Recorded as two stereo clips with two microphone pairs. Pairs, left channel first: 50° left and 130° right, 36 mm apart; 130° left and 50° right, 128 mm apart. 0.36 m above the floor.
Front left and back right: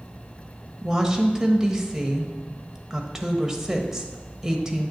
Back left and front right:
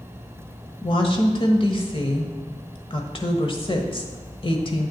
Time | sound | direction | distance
0.8 | a woman speaking | 155° left | 1.2 m